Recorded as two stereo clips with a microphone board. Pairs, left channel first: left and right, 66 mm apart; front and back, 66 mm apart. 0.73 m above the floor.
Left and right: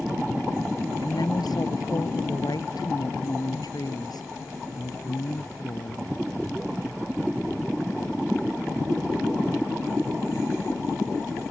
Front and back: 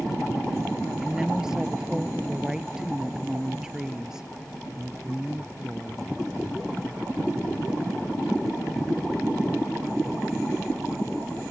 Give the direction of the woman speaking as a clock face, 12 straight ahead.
9 o'clock.